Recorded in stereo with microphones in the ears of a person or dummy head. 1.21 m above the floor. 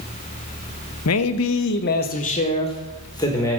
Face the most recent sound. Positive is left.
turn(degrees=15)  # may be behind; listen again after turning